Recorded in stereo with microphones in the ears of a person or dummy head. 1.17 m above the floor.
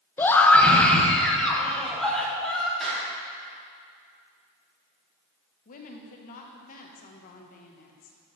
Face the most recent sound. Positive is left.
turn(degrees=45)  # may be behind; listen again after turning